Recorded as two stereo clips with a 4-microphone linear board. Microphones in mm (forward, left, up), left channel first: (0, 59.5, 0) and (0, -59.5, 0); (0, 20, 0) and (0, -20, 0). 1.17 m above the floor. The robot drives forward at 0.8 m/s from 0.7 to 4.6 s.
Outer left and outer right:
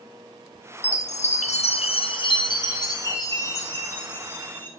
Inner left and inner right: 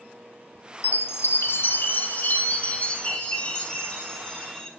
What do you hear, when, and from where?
0.8 s a chime: 65° left (ahead or behind), 0.9 m; by 4.7 s 15° left (ahead or behind), 3 m